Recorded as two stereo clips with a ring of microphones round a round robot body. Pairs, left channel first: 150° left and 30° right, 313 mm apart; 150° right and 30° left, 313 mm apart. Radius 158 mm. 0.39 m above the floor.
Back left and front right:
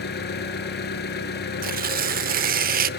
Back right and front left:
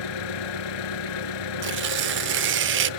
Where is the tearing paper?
10° left, 0.7 m.